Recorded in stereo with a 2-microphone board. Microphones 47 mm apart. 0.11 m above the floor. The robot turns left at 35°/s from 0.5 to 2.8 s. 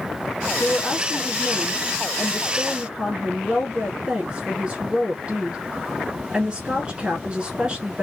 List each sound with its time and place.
0.6 s a woman speaking: centre (ahead or behind), 1.2 m; by 8.0 s 20° right (ahead or behind), 1.2 m